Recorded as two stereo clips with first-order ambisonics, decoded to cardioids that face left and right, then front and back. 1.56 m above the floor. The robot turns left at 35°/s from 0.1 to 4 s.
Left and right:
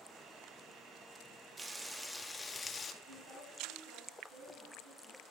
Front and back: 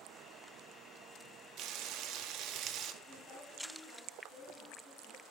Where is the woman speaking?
120° right, 3 m; by 5.2 s 155° right, 3 m.